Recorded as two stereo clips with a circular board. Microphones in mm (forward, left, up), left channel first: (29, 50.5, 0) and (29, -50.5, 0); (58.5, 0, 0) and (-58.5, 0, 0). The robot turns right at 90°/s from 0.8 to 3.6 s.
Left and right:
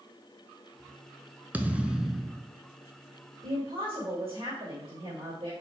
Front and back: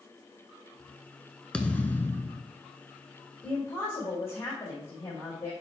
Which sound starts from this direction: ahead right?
A thud, at 1.5 s.